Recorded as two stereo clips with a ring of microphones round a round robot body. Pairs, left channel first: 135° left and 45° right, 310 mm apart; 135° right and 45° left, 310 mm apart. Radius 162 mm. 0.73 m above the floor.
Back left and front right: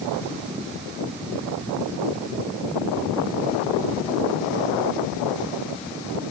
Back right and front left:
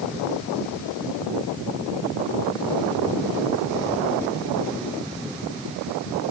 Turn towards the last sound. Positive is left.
No sound to turn to.